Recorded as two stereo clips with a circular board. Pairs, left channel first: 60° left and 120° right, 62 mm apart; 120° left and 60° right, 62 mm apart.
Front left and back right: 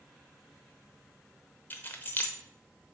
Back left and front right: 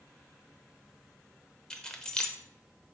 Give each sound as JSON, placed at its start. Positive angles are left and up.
{"t": 1.7, "sound": "keys jangling", "azimuth_deg": 55, "distance_m": 0.8}